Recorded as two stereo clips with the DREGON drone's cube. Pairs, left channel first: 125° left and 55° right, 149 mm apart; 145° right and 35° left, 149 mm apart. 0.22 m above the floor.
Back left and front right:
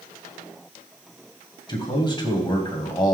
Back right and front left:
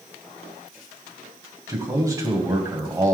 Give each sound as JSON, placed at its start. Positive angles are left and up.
{"t": 1.7, "sound": "a man speaking", "azimuth_deg": 85, "distance_m": 1.8}